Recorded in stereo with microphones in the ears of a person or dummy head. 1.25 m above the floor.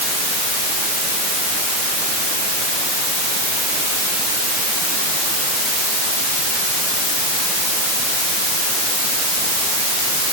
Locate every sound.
Only background noise.